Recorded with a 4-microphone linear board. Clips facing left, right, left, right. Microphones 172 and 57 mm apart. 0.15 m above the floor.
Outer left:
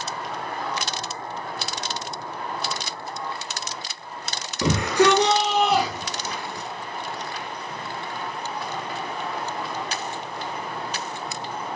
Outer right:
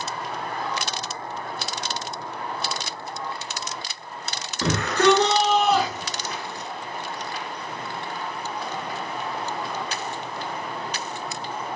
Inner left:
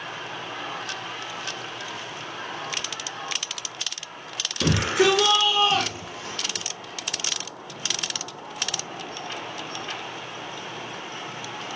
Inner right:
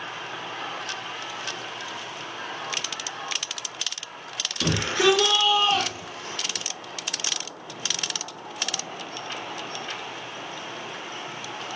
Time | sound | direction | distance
4.6 | a shout | 15° left (ahead or behind) | 2.5 m